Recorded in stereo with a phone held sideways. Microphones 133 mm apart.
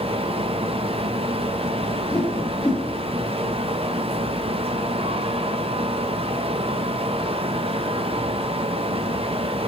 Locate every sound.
0.0 s a fan: 45° right (ahead or behind), 0.7 m
1.8 s a whoosh: 10° left (ahead or behind), 3 m